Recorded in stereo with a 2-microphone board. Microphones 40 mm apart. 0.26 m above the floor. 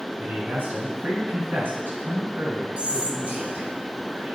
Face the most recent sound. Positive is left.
turn(degrees=-35)  # may be behind; listen again after turning